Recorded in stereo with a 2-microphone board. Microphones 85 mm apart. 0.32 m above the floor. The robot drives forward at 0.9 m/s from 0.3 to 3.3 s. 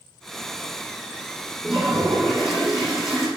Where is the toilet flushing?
5° right (ahead or behind), 3 m; by 3.3 s centre (ahead or behind), 4.5 m.